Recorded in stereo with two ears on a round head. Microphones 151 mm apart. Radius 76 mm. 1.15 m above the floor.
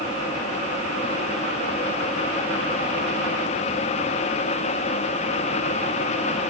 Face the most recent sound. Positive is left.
No sound to turn to.